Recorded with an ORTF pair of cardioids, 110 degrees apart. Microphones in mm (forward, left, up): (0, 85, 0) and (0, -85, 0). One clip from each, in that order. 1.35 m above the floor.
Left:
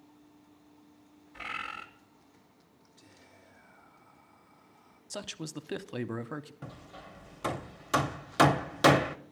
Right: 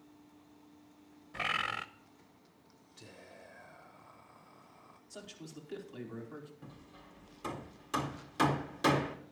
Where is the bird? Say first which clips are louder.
Right 4 dB; 60° right, 0.8 m.